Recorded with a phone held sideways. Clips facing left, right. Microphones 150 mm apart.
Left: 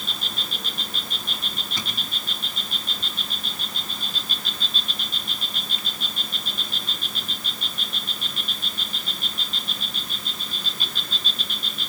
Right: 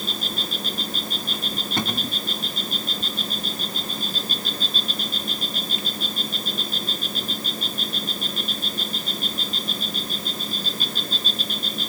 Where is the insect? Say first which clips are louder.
Right 5 dB; 40° right (ahead or behind).